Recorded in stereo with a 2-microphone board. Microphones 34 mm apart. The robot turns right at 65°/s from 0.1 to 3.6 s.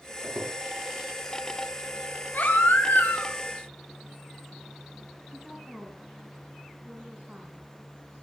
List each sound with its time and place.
0.2 s a squeak: 30° right (ahead or behind), 6.5 m; by 0.5 s 50° right (ahead or behind), 6.5 m
2.3 s a baby crying: 55° left, 3.5 m; by 3.4 s 120° left, 3.5 m
5.3 s a woman speaking: 10° right (ahead or behind), 5 m